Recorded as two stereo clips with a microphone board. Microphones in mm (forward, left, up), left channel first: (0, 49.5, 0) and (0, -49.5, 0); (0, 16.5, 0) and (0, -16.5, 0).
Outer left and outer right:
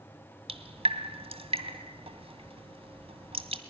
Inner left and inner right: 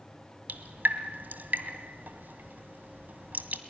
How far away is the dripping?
About 1.7 m.